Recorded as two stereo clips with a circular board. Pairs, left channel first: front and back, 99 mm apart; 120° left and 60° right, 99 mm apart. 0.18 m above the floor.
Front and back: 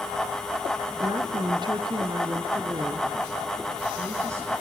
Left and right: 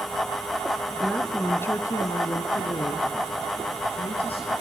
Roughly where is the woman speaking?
Behind right.